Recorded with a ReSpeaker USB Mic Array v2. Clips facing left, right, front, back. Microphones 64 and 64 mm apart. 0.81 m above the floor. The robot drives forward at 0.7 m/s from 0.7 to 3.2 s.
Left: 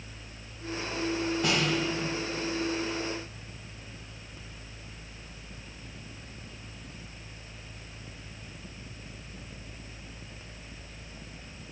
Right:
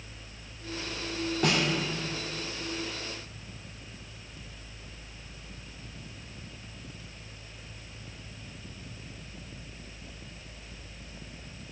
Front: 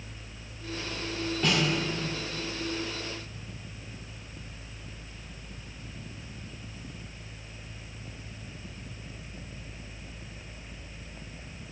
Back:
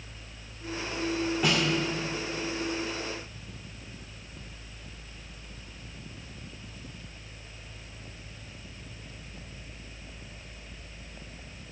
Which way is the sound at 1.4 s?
100° right.